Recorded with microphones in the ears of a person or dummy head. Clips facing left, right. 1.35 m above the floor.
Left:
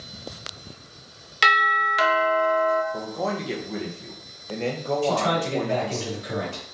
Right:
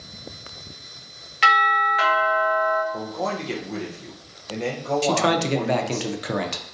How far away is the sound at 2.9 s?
About 0.6 m.